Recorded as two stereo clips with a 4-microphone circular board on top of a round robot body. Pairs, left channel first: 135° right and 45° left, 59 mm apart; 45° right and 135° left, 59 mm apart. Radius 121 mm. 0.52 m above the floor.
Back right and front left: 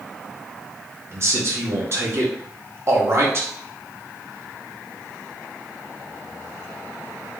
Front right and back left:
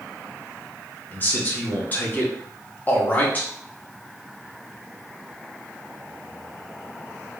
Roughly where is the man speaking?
Ahead.